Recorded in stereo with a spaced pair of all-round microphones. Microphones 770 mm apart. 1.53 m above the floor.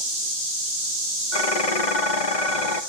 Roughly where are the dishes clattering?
Left.